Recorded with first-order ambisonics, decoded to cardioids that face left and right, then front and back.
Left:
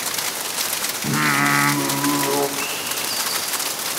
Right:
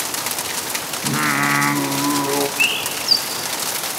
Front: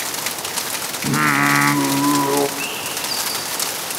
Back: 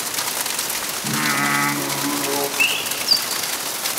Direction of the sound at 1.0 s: 5° left.